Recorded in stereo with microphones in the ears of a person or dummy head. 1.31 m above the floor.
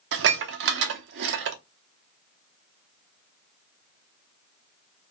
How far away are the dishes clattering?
About 0.6 m.